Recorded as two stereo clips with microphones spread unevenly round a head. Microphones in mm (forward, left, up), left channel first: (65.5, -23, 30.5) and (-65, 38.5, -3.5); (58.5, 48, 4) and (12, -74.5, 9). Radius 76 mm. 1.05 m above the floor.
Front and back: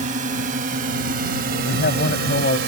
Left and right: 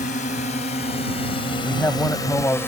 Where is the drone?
115° left; by 2.7 s 145° left.